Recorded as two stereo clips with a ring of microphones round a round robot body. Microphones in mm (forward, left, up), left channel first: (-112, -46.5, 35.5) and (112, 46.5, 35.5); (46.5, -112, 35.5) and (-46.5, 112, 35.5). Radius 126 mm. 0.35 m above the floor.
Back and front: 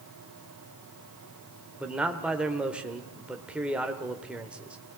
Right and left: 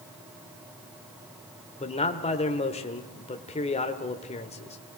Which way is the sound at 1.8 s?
55° right.